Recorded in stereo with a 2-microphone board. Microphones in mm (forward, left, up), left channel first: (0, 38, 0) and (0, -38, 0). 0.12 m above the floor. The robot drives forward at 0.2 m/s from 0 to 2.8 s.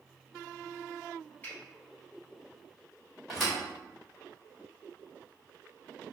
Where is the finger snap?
25° left (ahead or behind), 1.9 m.